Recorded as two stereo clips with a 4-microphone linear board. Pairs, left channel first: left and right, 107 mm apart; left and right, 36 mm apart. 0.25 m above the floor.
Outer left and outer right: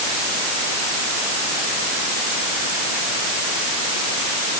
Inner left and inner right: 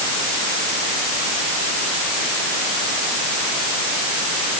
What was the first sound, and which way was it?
Only background noise.